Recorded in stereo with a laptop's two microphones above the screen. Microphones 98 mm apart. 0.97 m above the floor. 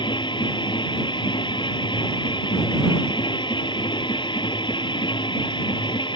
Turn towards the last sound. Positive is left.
turn(degrees=55)  # may be behind; listen again after turning